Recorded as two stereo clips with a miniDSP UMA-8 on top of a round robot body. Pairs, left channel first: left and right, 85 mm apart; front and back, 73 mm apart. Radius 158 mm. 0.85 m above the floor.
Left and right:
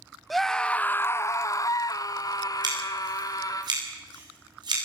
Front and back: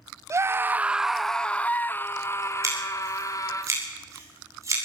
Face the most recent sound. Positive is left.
turn(degrees=-130)